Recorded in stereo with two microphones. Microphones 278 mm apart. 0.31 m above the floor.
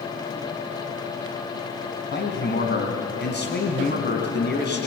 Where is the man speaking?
40° left (ahead or behind), 3 m.